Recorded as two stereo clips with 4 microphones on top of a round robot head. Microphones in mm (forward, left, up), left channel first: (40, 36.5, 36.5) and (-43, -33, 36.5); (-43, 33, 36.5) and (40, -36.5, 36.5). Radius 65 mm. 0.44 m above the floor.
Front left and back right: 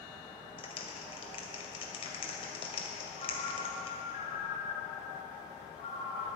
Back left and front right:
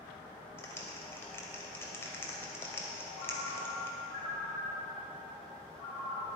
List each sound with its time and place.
0.6 s a clap: 70° left, 1.9 m
3.2 s a ringtone: 70° left, 1.9 m